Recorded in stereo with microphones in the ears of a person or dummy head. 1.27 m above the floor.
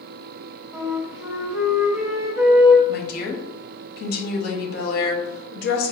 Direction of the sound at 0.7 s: 15° right (ahead or behind).